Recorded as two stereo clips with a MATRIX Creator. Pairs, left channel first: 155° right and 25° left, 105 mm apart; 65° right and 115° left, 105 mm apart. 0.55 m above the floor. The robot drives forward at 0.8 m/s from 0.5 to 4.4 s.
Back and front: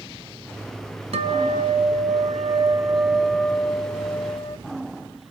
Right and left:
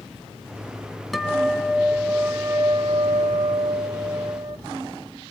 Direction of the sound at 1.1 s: 20° left.